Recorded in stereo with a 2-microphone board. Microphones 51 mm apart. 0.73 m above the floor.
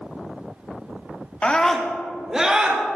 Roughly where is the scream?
Left.